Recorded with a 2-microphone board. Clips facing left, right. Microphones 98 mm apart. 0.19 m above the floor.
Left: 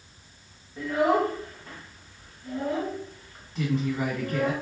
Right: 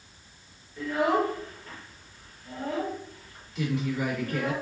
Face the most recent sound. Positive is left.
turn(degrees=35)  # may be behind; listen again after turning